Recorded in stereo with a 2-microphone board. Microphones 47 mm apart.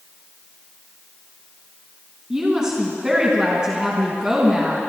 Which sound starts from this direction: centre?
A woman speaking, at 2.3 s.